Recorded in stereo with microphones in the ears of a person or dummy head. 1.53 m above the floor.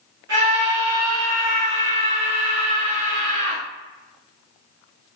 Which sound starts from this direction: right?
A scream, at 0.3 s.